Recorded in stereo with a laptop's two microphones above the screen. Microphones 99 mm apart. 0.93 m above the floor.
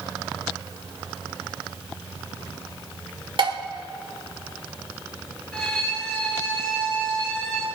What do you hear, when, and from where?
3.4 s dishes clattering: 60° right (ahead or behind), 1.9 m
5.5 s a violin: 5° left (ahead or behind), 5.5 m